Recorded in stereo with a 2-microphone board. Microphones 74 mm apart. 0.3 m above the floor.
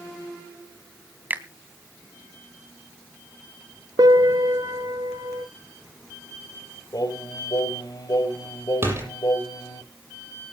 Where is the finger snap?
25° right (ahead or behind), 2.5 m.